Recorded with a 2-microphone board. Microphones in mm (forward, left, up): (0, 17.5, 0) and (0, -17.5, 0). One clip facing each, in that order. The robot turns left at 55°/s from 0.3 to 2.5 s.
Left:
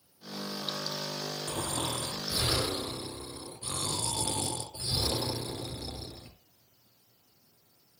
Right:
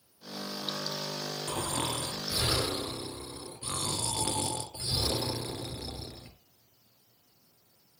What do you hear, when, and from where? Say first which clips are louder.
1.5 s snoring: right 2 dB; 85° right, 3 m; by 6.3 s 145° right, 3 m